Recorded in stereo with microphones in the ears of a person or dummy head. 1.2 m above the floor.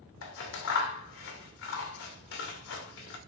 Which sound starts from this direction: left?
Scissors, at 0.2 s.